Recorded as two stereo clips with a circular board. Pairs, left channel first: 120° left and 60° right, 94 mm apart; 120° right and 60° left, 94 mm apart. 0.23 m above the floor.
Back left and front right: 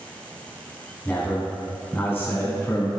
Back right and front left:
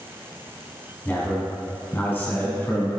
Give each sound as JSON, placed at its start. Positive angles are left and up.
{"t": 1.1, "sound": "a man speaking", "azimuth_deg": 180, "distance_m": 1.6}